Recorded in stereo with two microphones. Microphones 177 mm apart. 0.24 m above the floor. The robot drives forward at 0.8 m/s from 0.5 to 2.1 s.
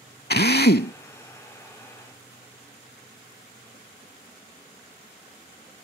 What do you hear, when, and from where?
0.3 s a drill: 65° left (ahead or behind); by 0.9 s 60° left (ahead or behind)